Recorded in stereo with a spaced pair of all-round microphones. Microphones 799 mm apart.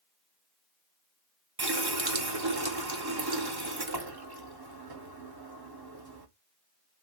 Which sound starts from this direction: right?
A running tap, at 1.6 s.